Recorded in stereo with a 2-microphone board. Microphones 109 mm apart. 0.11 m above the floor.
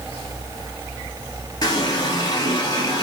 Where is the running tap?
35° left (ahead or behind), 1.8 m.